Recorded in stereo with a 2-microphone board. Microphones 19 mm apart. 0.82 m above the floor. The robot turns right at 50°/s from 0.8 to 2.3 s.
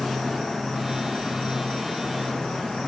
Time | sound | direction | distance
0.0 | an insect | 20° left | 1.0 m